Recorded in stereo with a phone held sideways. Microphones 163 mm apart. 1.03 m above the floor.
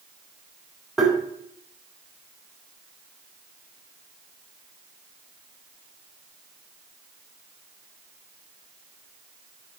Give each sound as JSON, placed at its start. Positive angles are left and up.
{"t": 1.0, "sound": "tapping", "side_deg": 0, "distance_m": 3.5}